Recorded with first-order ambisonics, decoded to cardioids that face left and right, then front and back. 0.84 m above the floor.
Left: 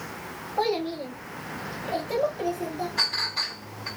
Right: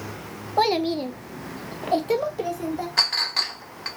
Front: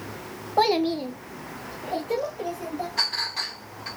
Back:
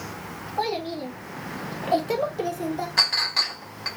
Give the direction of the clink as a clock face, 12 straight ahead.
4 o'clock.